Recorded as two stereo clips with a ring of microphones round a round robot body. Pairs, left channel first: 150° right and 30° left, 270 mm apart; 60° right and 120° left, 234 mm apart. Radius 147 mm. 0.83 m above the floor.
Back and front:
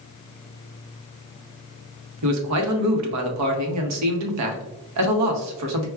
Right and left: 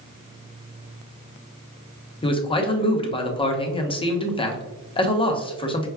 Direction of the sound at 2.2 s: 10° left.